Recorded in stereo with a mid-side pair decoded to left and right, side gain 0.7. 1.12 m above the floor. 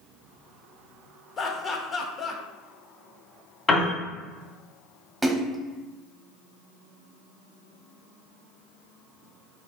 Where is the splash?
10° right, 0.8 m.